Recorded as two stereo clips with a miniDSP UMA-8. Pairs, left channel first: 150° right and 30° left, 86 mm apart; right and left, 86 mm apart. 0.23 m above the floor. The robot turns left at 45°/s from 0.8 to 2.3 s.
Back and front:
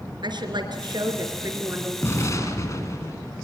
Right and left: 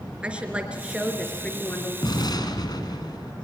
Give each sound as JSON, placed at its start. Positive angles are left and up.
{"t": 0.2, "sound": "a woman speaking", "azimuth_deg": 15, "distance_m": 3.5}
{"t": 2.0, "sound": "an explosion", "azimuth_deg": -95, "distance_m": 2.5}